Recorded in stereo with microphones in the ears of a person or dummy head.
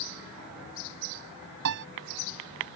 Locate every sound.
1.6 s a piano: 70° right (ahead or behind)